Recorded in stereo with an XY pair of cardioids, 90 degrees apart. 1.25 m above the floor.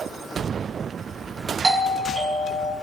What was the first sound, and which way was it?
A doorbell, 35° right.